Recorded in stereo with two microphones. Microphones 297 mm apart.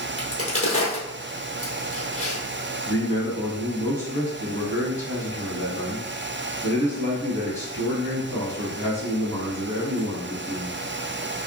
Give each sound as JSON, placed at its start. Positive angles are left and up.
{"t": 0.2, "sound": "a crack", "side_deg": 50, "distance_m": 1.7}
{"t": 2.9, "sound": "a man speaking", "side_deg": 40, "distance_m": 1.9}